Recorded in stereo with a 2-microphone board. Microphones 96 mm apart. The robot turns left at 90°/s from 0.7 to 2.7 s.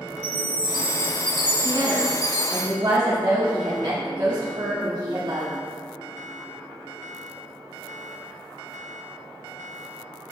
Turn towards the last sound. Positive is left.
turn(degrees=-140)